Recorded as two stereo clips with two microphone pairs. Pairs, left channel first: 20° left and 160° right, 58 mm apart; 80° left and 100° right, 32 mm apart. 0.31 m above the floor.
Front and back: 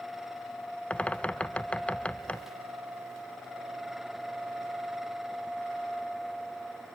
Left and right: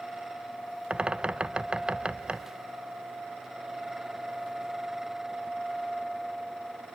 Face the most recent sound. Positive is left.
turn(degrees=-45)